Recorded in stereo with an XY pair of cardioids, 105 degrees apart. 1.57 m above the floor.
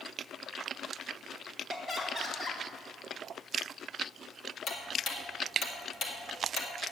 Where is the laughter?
40° left, 3.5 m.